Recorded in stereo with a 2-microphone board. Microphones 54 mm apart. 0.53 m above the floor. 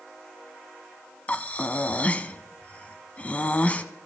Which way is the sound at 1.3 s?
30° left (ahead or behind).